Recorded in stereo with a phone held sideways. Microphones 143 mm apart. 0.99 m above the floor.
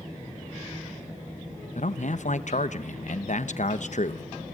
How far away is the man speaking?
About 1.0 m.